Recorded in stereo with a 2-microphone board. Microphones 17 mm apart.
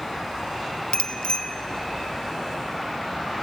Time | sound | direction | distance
0.9 | a bicycle bell | 75° left (ahead or behind) | 2 m